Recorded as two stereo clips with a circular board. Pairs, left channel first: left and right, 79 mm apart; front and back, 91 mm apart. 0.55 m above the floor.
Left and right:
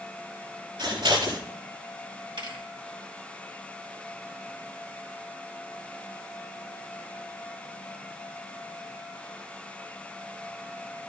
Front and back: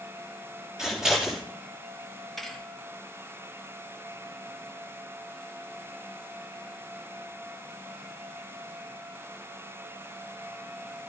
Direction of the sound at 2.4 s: 85° right.